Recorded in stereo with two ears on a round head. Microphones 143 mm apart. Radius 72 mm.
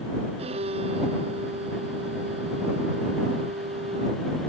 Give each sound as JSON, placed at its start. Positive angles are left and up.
{"t": 0.4, "sound": "a violin", "side_deg": -40}